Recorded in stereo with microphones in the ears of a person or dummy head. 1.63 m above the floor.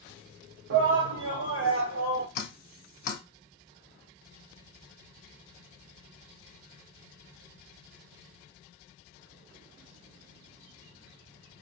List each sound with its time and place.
0.7 s a shout: 65° right (ahead or behind), 0.6 m; by 2.2 s 75° right (ahead or behind), 1.3 m
2.4 s dripping: 50° left (ahead or behind), 1.0 m